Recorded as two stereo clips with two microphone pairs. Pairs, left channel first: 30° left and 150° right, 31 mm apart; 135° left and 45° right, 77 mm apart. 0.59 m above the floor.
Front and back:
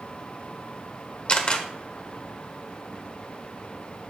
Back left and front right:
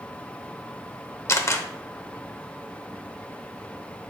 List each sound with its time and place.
1.3 s a camera shutter: 80° left, 0.8 m